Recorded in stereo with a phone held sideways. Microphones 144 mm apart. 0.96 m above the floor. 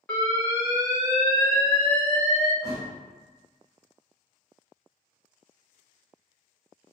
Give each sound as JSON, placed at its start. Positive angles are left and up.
{"t": 0.1, "sound": "an alarm", "side_deg": 15, "distance_m": 1.3}
{"t": 2.6, "sound": "a thud", "side_deg": -20, "distance_m": 1.0}